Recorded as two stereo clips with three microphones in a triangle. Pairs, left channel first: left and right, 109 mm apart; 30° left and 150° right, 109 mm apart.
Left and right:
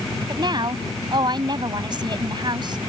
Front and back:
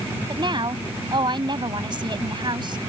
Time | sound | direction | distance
0.3 | a woman speaking | 125° right | ?